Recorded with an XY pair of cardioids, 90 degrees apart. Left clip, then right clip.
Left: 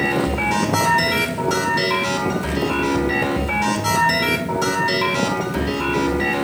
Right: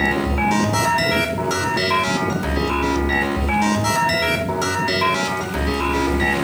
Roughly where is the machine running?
Ahead right.